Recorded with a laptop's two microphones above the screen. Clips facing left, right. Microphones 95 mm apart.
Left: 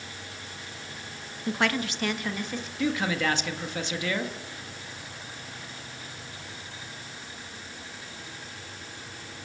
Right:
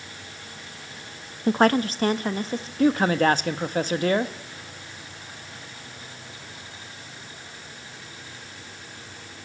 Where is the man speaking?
40° right (ahead or behind), 1.0 m.